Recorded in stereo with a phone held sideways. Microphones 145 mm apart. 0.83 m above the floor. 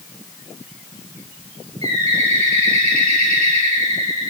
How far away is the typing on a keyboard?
I don't hear typing on a keyboard.